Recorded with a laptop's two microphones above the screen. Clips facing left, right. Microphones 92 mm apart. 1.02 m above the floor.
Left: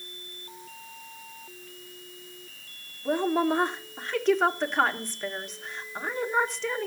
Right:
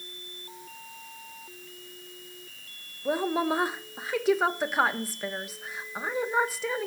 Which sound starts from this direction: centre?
A woman speaking, at 3.0 s.